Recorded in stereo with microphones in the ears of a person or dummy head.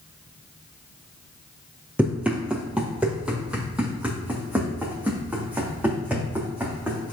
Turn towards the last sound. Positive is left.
turn(degrees=-10)  # may be behind; listen again after turning